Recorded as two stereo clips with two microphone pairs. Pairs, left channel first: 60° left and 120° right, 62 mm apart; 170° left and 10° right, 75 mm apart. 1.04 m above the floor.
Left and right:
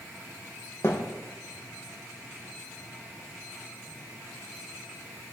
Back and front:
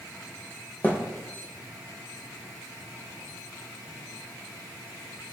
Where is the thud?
105° left, 3 m.